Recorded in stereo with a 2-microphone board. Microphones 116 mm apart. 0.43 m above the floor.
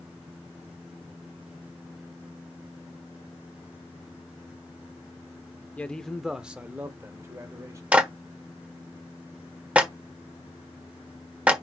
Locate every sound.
5.8 s a man speaking: 15° left (ahead or behind), 0.8 m; by 7.8 s 25° right (ahead or behind), 1.5 m
7.9 s a clap: 10° right (ahead or behind), 1.3 m